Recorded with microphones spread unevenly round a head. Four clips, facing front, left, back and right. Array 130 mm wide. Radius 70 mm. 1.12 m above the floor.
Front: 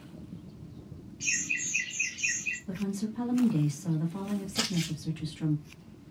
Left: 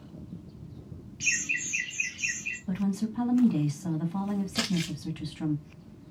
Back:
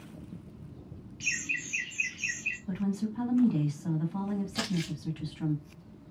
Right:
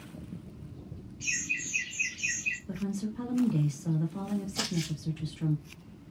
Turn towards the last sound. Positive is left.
turn(degrees=85)